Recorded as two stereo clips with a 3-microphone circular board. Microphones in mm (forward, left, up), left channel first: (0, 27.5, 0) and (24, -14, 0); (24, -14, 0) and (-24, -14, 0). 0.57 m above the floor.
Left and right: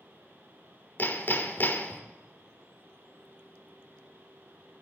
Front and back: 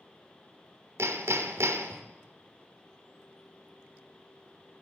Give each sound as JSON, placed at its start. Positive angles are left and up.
{"t": 1.0, "sound": "hammering", "azimuth_deg": 165, "distance_m": 0.6}